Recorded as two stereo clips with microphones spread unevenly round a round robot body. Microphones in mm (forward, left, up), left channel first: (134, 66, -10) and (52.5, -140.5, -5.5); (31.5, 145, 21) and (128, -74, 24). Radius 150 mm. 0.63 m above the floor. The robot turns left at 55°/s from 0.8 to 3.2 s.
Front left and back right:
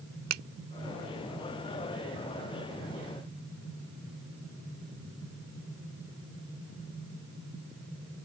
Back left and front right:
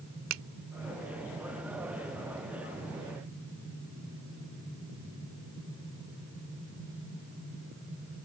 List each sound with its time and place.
0.3 s a finger snap: 105° right